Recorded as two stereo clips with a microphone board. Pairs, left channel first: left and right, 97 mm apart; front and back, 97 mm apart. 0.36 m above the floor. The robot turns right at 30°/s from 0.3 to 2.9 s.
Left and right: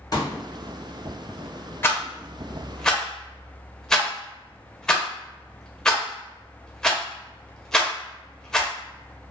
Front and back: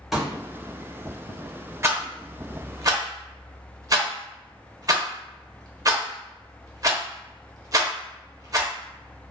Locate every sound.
0.1 s a pop: 95° left, 0.9 m
1.8 s a rattle: 140° left, 0.6 m; by 8.7 s 170° left, 0.6 m